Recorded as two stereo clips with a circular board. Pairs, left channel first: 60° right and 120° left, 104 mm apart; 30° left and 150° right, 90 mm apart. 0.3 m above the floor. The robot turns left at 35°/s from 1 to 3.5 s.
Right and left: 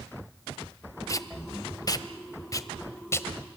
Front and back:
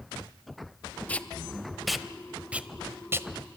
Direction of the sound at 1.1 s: 35° right.